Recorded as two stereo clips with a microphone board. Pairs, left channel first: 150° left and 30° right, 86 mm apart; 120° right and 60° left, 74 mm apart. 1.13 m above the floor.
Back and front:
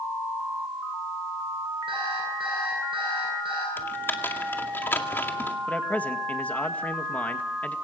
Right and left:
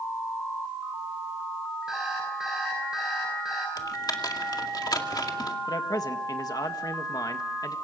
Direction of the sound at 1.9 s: 25° right.